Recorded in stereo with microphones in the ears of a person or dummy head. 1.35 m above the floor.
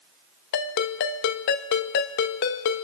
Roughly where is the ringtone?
Left.